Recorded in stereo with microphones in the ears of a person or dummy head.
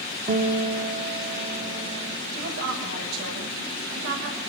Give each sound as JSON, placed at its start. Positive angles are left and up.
{"t": 0.3, "sound": "a guitar", "side_deg": -45, "distance_m": 1.5}
{"t": 2.3, "sound": "a woman speaking", "side_deg": -80, "distance_m": 8.0}